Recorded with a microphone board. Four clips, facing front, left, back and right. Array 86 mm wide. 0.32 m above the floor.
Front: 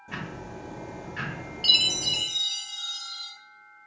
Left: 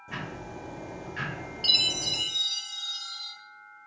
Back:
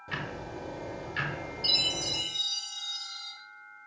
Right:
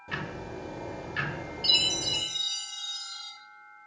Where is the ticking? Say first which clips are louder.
Right 2 dB, even; 135° right, 0.9 m.